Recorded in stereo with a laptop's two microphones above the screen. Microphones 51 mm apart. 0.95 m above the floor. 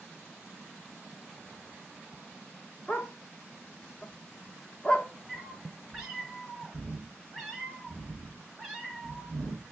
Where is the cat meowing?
5° right (ahead or behind), 1.4 m.